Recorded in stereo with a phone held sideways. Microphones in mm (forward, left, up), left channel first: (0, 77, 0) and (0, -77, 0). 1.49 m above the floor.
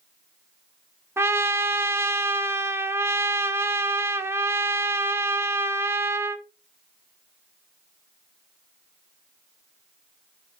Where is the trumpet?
15° right (ahead or behind), 0.7 m.